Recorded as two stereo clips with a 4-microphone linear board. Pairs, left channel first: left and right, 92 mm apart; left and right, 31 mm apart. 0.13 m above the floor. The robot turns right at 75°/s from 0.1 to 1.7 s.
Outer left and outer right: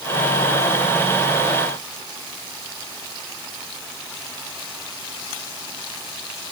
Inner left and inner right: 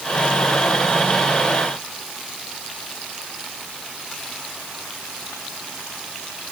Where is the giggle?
No giggle in this recording.